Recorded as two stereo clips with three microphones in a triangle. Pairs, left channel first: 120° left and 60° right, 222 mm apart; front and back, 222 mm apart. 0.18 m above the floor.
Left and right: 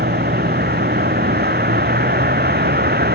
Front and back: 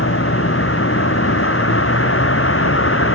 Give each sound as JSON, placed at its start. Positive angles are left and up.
{"t": 0.0, "sound": "a vehicle", "azimuth_deg": -20}